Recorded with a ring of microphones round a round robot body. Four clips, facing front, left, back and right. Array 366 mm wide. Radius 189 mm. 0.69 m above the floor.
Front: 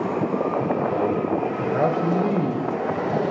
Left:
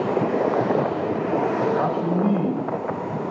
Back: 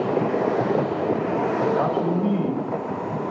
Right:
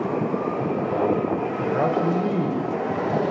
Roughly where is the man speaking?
Ahead right.